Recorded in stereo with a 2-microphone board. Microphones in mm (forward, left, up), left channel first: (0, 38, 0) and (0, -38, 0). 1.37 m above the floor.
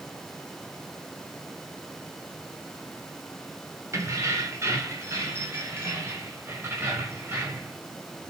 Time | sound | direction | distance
3.9 | keys jangling | 40° right (ahead or behind) | 3.5 m